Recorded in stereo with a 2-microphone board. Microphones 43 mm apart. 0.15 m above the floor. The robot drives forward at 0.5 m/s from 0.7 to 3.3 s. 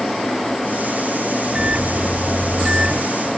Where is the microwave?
20° right (ahead or behind), 0.8 m; by 3.0 s 15° right (ahead or behind), 1.0 m.